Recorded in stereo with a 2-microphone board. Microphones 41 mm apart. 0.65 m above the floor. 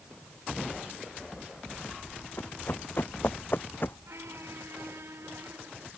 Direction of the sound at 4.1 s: 80° right.